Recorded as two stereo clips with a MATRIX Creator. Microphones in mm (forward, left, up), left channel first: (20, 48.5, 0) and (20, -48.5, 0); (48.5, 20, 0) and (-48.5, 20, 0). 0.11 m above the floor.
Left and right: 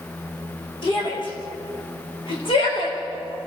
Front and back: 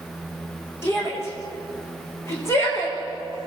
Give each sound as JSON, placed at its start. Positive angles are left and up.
{"t": 0.8, "sound": "a shout", "azimuth_deg": 60, "distance_m": 8.5}